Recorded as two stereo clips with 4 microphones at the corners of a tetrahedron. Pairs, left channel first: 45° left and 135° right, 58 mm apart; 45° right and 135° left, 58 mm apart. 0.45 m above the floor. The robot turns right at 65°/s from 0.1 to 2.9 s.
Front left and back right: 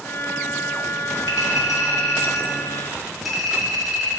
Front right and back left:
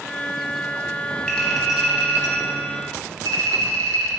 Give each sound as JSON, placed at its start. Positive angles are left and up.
{"t": 1.3, "sound": "a clink", "azimuth_deg": 30, "distance_m": 2.0}